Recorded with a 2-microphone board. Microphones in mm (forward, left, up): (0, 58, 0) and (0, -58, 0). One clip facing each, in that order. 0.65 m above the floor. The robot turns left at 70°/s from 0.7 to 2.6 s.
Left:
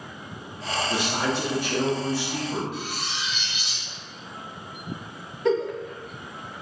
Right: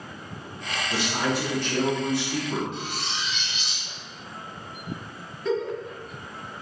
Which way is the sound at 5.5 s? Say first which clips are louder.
Left 3 dB; 65° left (ahead or behind).